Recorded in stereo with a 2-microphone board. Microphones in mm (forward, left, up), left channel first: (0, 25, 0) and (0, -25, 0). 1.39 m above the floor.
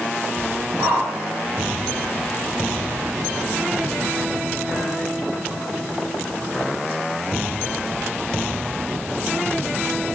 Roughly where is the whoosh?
Right.